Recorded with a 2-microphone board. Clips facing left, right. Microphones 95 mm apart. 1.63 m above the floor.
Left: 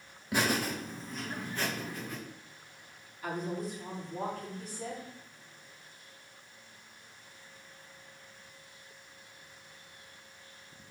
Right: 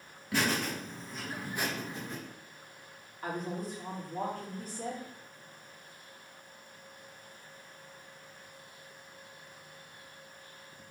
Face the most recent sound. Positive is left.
turn(degrees=-45)  # may be behind; listen again after turning